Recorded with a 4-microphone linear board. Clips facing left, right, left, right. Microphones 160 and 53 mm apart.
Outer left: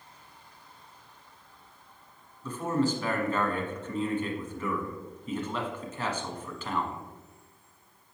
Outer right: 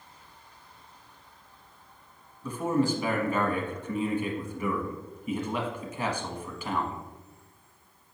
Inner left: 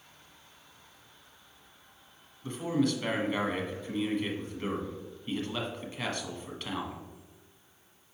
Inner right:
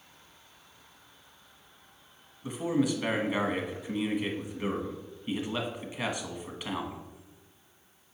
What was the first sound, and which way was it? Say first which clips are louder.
A man speaking: outer right 2 dB, inner right 1 dB; 15° right (ahead or behind).